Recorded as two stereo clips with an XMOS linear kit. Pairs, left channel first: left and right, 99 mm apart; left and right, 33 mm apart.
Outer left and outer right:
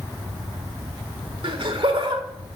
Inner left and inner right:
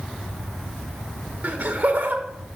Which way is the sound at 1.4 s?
60° right (ahead or behind).